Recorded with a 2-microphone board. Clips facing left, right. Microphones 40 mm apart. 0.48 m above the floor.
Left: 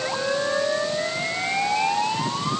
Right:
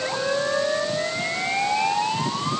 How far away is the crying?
No crying in this recording.